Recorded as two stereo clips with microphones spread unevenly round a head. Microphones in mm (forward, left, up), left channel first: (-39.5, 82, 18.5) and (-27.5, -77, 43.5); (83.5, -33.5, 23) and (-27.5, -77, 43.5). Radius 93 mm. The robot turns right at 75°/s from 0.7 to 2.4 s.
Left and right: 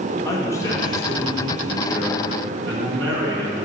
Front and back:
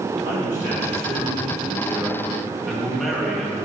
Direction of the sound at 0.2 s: 165° left.